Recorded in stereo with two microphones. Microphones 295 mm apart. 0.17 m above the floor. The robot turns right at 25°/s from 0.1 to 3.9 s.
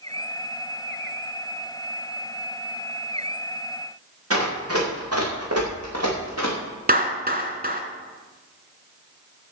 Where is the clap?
30° right (ahead or behind), 1.8 m.